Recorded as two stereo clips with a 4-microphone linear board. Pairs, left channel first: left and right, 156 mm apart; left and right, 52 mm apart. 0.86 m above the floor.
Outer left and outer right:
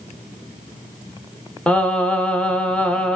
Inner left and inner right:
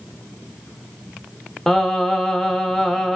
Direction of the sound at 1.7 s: 10° left (ahead or behind).